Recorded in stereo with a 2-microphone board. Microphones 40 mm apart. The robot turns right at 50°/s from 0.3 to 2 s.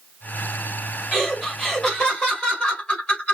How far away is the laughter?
About 3 m.